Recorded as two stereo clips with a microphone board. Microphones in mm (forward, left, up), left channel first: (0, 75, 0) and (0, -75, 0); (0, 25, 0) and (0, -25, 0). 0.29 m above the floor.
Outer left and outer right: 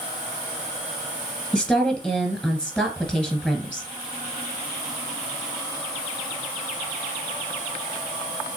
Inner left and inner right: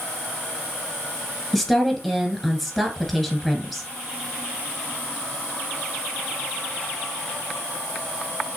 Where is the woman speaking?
5° left (ahead or behind), 1.6 m.